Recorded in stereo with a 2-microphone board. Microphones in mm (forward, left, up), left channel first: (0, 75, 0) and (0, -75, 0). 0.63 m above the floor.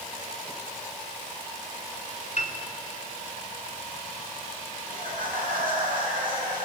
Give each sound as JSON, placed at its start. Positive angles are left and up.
{"t": 2.4, "sound": "a piano", "side_deg": 55, "distance_m": 2.5}
{"t": 4.9, "sound": "laughter", "side_deg": -75, "distance_m": 6.5}